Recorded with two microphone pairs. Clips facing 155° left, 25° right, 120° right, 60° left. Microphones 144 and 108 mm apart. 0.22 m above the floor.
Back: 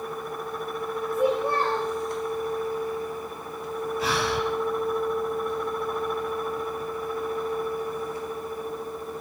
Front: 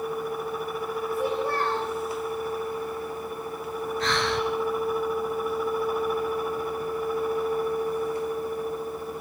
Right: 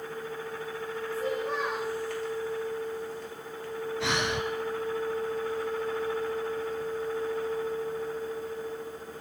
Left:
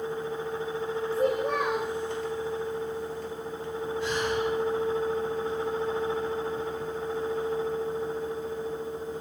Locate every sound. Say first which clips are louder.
1.1 s a child speaking: back 4 dB, left 5 dB; 85° left, 4 m
4.0 s breathing: even, left 1 dB; 125° right, 3 m